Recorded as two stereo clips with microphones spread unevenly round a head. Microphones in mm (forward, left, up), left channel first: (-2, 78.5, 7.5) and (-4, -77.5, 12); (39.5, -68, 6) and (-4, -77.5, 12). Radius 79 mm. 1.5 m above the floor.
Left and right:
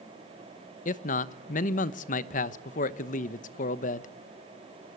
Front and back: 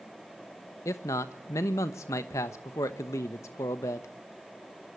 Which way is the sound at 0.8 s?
50° left.